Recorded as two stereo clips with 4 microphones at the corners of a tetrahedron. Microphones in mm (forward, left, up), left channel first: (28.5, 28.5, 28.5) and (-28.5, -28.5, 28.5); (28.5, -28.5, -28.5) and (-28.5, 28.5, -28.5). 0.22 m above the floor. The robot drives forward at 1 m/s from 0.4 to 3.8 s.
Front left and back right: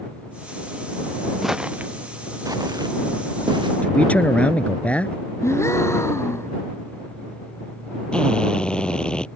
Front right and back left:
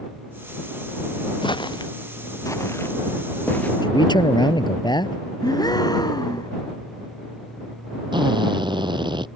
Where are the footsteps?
45° right; by 3.7 s 115° right.